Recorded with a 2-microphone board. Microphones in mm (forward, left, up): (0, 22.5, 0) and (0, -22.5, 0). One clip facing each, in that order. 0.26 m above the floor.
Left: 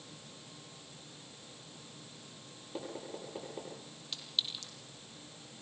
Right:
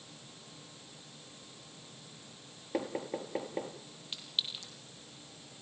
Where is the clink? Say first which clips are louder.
Even; 25° right (ahead or behind), 5.5 m.